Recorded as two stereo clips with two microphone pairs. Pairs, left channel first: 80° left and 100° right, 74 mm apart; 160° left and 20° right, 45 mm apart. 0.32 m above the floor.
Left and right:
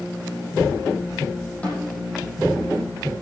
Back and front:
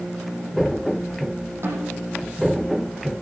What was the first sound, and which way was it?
A snare drum, 5° left.